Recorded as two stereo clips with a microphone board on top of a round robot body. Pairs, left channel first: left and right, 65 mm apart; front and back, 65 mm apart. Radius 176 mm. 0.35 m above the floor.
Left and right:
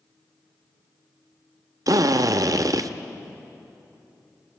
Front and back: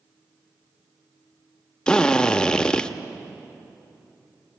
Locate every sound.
1.9 s a drill: 75° right, 0.9 m